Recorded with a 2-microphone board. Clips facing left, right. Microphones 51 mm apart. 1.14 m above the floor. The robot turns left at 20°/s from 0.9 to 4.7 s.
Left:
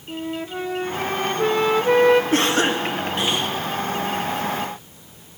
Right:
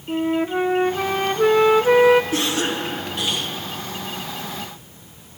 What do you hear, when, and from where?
0.1 s a flute: 30° right (ahead or behind), 0.6 m; by 2.2 s 5° right (ahead or behind), 0.6 m
2.3 s a cough: 50° left (ahead or behind), 1.9 m; by 3.5 s 30° left (ahead or behind), 1.9 m